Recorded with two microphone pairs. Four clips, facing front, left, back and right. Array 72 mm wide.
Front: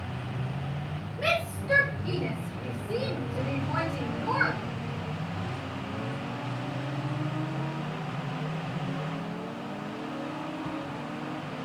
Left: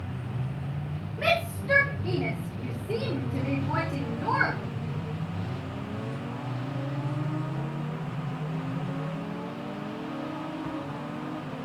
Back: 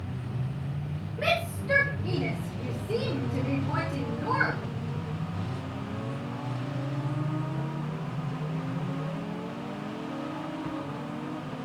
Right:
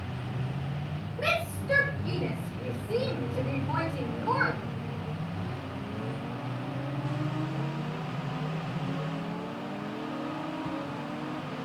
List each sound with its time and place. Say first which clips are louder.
1.2 s a shout: left 4 dB, even; 105° left, 4 m